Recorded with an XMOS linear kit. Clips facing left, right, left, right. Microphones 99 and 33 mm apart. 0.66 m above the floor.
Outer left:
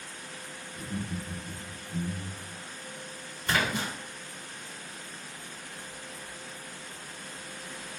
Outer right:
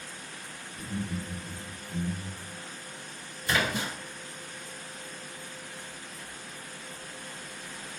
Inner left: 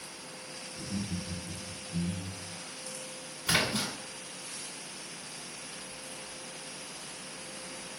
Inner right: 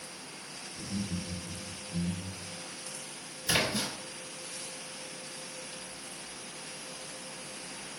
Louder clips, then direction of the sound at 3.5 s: Even, inner left 1 dB; 50° left (ahead or behind).